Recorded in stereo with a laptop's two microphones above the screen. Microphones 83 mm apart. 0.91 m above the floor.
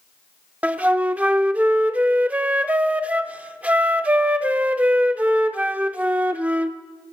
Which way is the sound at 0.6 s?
20° right (ahead or behind).